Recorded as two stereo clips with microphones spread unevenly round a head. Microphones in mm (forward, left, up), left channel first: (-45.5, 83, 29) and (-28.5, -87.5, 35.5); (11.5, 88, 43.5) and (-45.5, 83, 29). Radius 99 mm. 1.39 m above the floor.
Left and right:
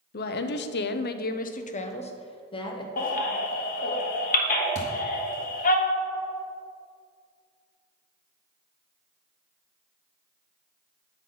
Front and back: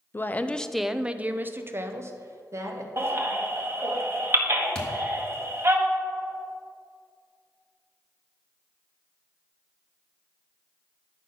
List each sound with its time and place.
0.1 s a woman speaking: 65° left, 0.6 m; by 2.9 s 160° left, 1.4 m
3.0 s a baby crying: 135° left, 1.3 m
4.8 s a thud: 50° left, 0.9 m